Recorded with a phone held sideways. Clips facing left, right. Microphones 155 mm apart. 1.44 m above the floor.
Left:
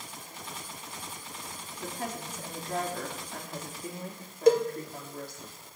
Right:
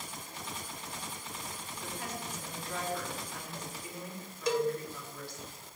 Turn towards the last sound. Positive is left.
turn(degrees=55)  # may be behind; listen again after turning